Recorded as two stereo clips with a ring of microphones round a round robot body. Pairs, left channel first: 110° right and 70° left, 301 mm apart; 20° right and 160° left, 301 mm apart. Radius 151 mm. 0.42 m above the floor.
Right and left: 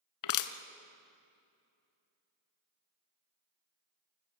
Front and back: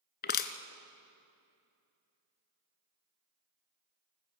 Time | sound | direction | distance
0.2 | crushing | 85° right | 0.9 m